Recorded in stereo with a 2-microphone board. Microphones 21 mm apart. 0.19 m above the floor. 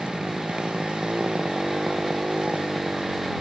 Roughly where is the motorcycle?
Right.